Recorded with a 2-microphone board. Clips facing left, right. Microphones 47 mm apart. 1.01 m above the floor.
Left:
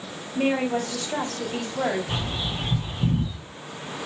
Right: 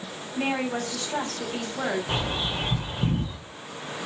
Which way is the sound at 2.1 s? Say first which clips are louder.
Right 2 dB; 35° right (ahead or behind).